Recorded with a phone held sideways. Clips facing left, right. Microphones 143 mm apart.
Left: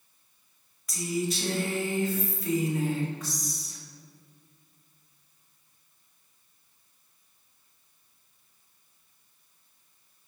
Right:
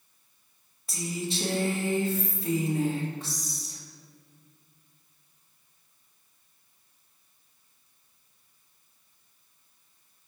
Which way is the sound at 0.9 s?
30° right (ahead or behind).